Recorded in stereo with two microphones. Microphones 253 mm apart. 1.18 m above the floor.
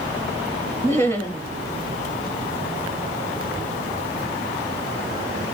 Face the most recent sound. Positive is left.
turn(degrees=10)  # may be behind; listen again after turning